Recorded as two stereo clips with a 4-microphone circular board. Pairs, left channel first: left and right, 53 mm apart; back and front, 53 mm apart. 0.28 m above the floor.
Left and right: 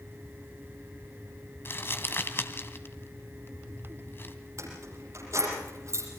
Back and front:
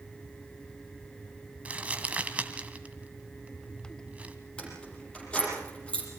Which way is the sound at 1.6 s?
60° left.